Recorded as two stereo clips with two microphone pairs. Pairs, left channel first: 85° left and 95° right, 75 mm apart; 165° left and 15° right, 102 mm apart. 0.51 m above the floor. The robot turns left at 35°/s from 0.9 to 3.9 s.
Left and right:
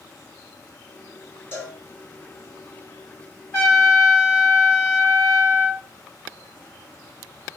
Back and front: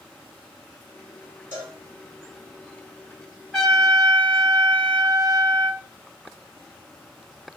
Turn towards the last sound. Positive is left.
turn(degrees=60)